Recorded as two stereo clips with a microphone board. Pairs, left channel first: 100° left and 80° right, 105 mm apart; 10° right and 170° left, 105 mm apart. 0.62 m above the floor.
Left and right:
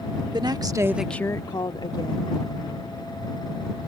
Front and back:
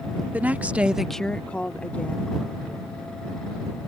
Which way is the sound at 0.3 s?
115° right.